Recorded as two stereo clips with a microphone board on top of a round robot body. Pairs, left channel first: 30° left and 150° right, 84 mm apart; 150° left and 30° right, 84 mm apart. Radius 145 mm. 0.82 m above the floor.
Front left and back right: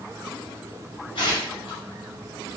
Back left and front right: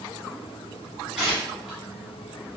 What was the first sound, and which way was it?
Tearing paper, 50° left.